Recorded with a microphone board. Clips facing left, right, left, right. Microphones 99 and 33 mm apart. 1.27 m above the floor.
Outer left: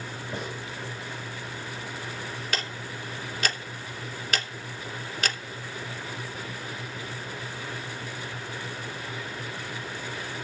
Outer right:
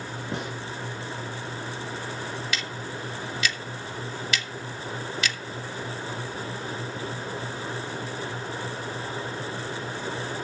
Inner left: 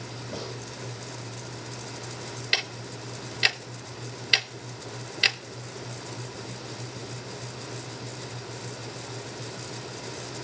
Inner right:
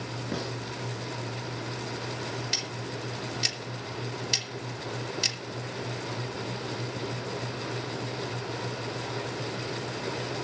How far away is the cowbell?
I don't hear a cowbell.